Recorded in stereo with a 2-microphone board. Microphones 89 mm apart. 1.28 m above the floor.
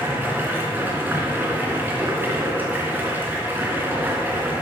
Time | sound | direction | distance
0.0 | running water | 20° right (ahead or behind) | 2.5 m